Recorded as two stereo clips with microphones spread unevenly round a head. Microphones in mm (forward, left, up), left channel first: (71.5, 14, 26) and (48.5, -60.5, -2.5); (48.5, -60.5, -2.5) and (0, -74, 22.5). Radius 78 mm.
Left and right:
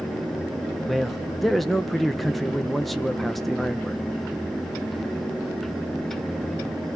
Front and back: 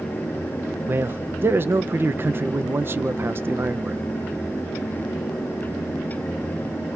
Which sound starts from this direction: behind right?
A man speaking, at 0.9 s.